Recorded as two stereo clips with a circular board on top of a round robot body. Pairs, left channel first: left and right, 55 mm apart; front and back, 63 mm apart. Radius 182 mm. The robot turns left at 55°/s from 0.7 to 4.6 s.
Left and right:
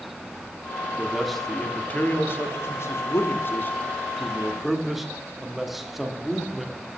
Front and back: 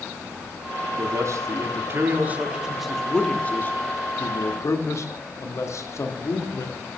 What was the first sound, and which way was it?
A man speaking, 165° right.